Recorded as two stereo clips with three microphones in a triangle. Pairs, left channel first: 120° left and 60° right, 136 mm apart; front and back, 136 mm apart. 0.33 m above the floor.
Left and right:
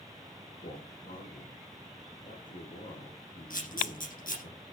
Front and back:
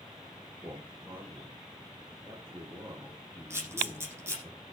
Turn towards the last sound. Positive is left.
turn(degrees=110)